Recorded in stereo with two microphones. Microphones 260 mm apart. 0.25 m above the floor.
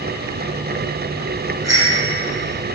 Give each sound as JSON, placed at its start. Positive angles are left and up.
{"t": 1.6, "sound": "a bicycle bell", "side_deg": -75, "distance_m": 7.5}